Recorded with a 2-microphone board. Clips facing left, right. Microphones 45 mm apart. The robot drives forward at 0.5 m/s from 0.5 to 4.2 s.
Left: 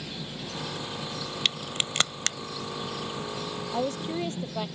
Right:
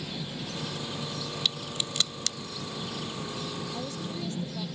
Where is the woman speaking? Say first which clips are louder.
Left 6 dB; 45° left (ahead or behind).